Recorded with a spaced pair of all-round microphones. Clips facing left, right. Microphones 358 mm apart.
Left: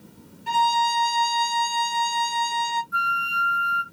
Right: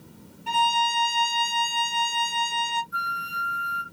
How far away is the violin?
About 0.6 m.